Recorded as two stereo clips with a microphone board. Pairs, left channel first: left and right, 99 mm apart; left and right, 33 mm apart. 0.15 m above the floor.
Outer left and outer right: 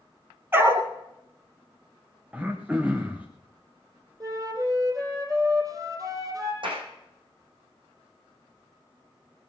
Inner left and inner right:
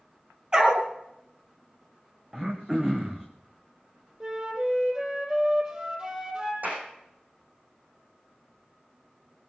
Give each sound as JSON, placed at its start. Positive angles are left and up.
{"t": 0.5, "sound": "a dog barking", "side_deg": -25, "distance_m": 1.9}
{"t": 2.3, "sound": "throat clearing", "side_deg": -15, "distance_m": 1.7}
{"t": 4.2, "sound": "a flute", "side_deg": -35, "distance_m": 3.5}
{"t": 6.6, "sound": "a clap", "side_deg": -55, "distance_m": 6.0}